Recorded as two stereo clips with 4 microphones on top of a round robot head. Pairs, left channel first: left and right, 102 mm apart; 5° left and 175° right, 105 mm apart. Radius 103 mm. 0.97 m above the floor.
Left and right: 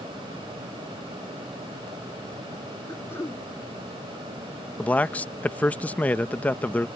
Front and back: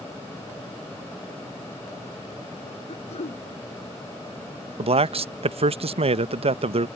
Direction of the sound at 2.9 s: 25° left.